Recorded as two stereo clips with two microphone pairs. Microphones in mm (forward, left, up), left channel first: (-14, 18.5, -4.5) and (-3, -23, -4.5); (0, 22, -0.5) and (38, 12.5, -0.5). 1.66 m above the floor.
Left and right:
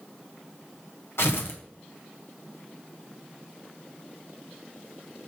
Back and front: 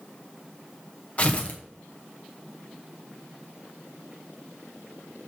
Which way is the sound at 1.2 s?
115° left.